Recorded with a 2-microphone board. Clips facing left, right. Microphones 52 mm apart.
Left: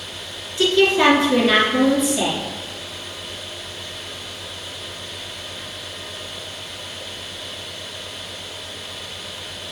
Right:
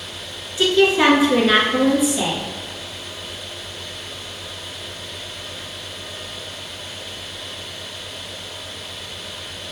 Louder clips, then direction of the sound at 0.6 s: Even; 10° right (ahead or behind).